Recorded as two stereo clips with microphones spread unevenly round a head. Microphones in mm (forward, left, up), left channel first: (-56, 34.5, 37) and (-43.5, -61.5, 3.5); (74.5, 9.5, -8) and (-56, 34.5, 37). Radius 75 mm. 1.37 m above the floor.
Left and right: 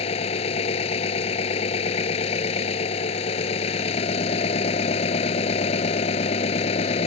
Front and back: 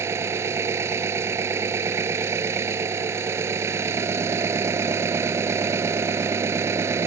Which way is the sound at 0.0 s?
105° left.